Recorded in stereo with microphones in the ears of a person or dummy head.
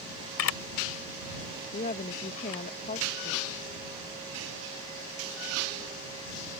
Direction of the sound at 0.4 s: 75° left (ahead or behind).